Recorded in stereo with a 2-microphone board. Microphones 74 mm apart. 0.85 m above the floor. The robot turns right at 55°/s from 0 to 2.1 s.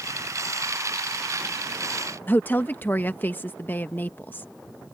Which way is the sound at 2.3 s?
25° left (ahead or behind).